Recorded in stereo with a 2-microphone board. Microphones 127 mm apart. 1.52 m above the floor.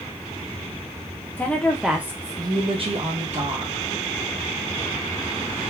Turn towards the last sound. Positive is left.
turn(degrees=-65)  # may be behind; listen again after turning